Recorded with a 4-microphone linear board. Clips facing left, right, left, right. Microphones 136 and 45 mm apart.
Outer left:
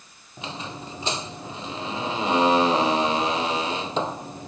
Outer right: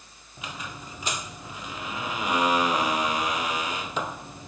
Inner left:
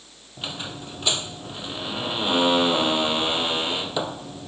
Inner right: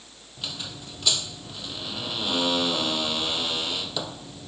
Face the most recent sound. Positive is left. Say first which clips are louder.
# outer left 4 dB, inner left 4 dB
turn(degrees=30)  # may be behind; listen again after turning